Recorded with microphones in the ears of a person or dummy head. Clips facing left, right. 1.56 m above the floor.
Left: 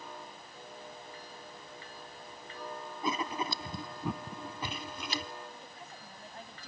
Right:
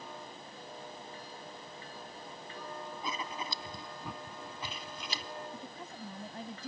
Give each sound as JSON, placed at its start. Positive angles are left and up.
{"t": 3.0, "sound": "writing", "side_deg": 50}
{"t": 5.5, "sound": "a woman speaking", "side_deg": -80}